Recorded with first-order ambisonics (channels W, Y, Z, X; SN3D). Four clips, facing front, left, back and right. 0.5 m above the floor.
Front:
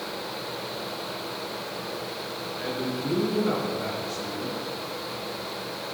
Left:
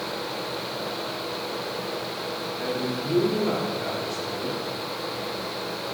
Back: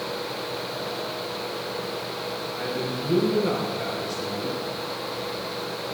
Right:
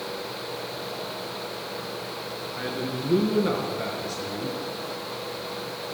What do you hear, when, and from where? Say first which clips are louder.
2.6 s a man speaking: left 1 dB, even; 95° right, 5.5 m; by 4.6 s 90° right, 6.5 m